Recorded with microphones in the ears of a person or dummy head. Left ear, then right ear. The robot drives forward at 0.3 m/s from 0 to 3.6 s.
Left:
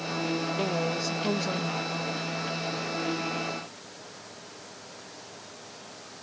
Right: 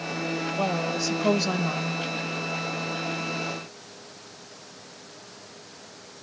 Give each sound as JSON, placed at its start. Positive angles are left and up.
{"t": 0.6, "sound": "a woman speaking", "side_deg": -25, "distance_m": 1.0}